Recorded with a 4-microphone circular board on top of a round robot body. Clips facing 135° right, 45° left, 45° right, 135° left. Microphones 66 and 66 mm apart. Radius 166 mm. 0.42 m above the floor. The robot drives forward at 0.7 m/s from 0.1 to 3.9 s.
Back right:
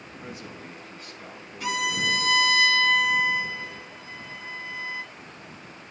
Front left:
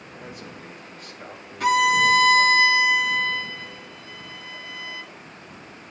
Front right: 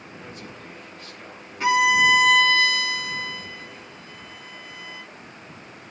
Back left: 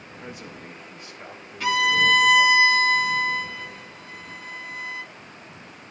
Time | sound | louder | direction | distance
0.2 | a man speaking | even, back left 3 dB | 55° left | 4 m
1.6 | a violin | front left 9 dB, front right 3 dB | 20° left | 0.9 m